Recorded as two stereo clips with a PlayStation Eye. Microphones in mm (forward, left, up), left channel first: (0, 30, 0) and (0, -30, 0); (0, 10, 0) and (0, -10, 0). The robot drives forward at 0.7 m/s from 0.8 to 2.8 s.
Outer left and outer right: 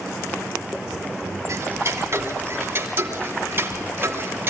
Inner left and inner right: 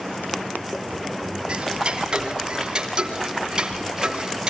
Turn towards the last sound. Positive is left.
turn(degrees=-40)  # may be behind; listen again after turning